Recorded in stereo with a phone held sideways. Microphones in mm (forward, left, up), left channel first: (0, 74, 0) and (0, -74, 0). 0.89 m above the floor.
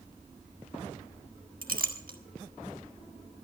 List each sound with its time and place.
1.6 s a clink: 75° right (ahead or behind), 1.4 m